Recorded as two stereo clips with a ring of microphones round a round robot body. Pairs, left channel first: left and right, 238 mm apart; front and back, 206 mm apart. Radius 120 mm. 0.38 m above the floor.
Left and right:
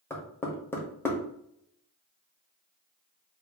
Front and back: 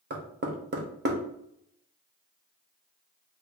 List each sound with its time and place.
0.1 s knocking: 170° left, 0.8 m